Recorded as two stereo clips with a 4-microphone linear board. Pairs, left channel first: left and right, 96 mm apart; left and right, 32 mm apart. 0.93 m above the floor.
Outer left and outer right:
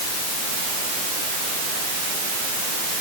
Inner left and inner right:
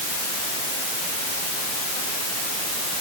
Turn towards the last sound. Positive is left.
No sound to turn to.